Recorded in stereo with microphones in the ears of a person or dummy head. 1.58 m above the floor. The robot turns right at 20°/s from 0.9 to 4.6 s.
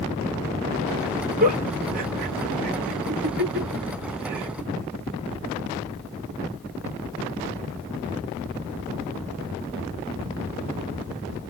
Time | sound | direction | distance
1.4 | a giggle | 45° right (ahead or behind) | 1.2 m